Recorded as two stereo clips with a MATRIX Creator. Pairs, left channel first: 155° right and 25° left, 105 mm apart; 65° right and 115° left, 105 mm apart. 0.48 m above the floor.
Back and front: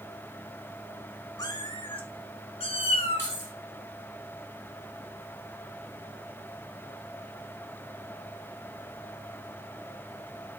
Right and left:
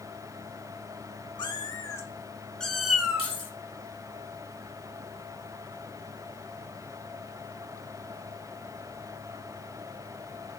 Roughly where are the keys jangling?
Right.